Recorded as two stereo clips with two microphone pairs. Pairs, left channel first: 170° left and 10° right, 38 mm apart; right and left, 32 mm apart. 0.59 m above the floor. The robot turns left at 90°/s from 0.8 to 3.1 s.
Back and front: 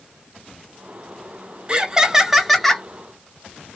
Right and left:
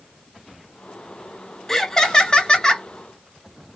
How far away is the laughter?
About 0.7 m.